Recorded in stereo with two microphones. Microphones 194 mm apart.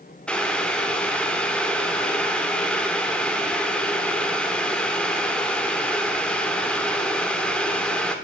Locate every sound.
0.3 s boiling: 5° left (ahead or behind), 0.9 m